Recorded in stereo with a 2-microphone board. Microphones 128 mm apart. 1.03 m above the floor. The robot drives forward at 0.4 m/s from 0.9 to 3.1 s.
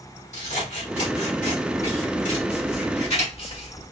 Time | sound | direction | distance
0.3 | scissors | 80° left | 1.9 m